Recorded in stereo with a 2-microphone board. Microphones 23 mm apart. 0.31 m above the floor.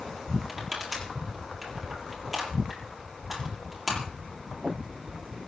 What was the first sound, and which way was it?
Crushing, 5° right (ahead or behind).